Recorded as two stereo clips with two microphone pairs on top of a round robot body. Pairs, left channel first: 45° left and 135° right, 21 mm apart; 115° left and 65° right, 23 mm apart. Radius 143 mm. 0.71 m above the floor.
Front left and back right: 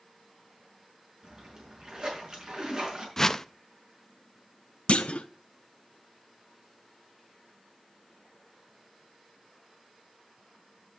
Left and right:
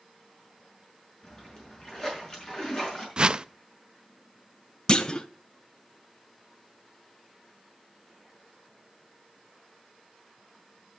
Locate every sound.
1.2 s a splash: 170° left, 5.5 m
3.2 s a whoosh: 20° right, 0.6 m
4.9 s a clunk: 65° left, 0.6 m